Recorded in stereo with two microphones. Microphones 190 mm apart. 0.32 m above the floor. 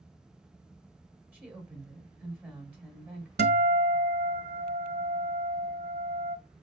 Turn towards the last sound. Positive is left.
turn(degrees=-60)  # may be behind; listen again after turning